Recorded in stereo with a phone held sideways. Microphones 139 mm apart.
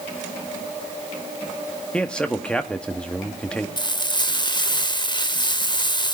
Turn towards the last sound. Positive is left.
turn(degrees=35)  # may be behind; listen again after turning